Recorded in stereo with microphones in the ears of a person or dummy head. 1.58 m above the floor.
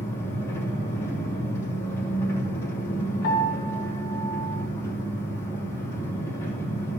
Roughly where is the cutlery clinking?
No cutlery clinking in this recording.